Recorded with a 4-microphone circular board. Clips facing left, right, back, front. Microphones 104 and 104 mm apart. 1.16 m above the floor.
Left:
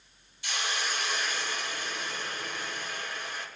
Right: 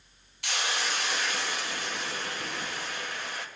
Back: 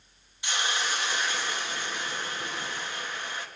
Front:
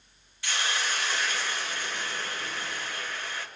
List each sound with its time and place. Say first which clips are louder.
0.4 s a hiss: right 2 dB, back 1 dB; 110° right, 2 m